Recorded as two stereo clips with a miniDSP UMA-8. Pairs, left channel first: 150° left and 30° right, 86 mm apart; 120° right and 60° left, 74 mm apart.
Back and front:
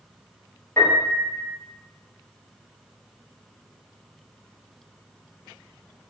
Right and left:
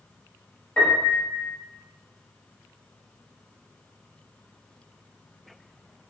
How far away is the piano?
About 1.0 m.